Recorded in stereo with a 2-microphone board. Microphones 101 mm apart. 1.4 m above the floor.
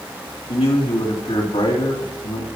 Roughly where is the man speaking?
Left.